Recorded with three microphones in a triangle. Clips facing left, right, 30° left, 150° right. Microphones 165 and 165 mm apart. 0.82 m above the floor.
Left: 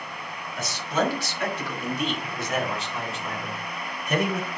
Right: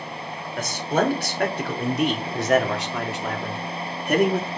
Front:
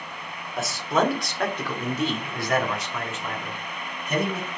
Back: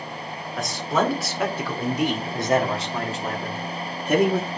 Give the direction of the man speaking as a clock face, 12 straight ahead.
2 o'clock.